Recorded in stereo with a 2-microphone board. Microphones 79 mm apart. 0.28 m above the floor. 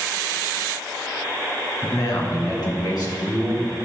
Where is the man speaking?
55° left (ahead or behind), 1.7 m; by 3.8 s 60° left (ahead or behind), 3 m.